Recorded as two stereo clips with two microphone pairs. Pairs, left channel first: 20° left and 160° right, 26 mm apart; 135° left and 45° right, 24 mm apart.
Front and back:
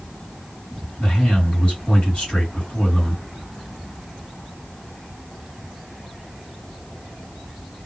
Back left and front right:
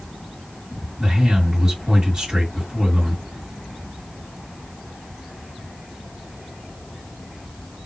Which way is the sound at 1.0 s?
10° left.